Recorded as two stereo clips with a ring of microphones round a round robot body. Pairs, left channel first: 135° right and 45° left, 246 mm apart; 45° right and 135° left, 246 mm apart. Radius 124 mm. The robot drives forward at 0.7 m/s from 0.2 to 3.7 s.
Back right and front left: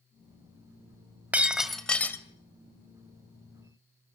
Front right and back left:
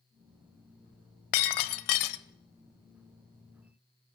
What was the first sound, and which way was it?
Breaking glass, 40° right.